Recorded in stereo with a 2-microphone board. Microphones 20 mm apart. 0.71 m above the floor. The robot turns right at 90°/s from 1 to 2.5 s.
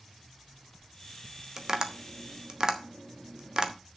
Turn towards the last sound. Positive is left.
turn(degrees=-40)  # may be behind; listen again after turning